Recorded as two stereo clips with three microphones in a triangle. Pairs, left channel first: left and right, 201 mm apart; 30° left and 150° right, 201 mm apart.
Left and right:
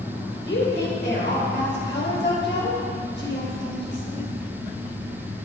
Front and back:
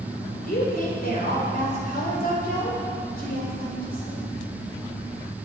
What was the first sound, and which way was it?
A woman speaking, 70° left.